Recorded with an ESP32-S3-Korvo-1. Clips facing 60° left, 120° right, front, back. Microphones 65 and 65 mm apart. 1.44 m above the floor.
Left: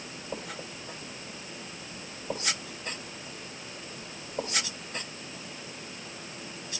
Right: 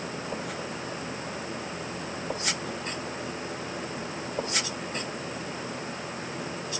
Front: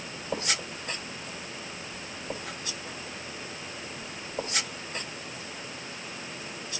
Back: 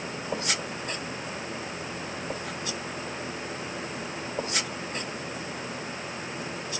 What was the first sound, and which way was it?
Only background noise.